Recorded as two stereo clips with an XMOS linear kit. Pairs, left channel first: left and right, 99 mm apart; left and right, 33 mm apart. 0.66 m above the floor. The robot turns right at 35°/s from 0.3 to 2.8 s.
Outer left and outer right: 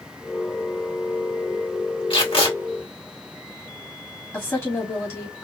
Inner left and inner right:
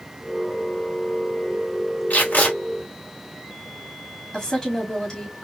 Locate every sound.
2.1 s tape being pulled: 65° left (ahead or behind), 2 m
4.3 s a woman speaking: 25° left (ahead or behind), 1.7 m